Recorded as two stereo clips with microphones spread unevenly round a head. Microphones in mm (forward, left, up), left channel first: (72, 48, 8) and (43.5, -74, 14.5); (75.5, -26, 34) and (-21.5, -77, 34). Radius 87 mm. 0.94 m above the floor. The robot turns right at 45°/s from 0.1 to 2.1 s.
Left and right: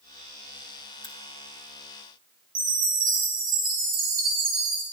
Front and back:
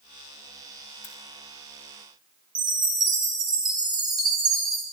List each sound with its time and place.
1.0 s a crack: 25° left, 2.0 m; by 1.1 s 30° left, 2.0 m
2.5 s a chime: 100° right, 3 m